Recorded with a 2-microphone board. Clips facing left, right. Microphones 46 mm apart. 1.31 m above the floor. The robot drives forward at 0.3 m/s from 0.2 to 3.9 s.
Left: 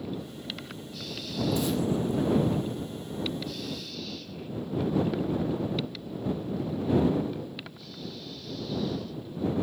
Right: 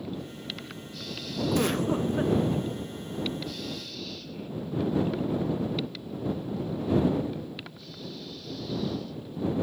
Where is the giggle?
60° right (ahead or behind), 0.5 m; by 2.4 s 40° right (ahead or behind), 0.7 m.